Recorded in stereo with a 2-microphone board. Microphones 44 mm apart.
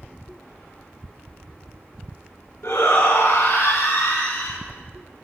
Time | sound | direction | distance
2.6 | a shout | 70° left (ahead or behind) | 2.0 m